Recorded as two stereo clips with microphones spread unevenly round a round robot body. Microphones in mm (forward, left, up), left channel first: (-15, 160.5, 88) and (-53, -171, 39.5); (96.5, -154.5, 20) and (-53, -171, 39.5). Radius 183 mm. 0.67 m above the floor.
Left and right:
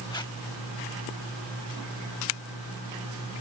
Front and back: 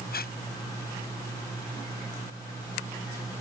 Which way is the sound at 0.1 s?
5° left.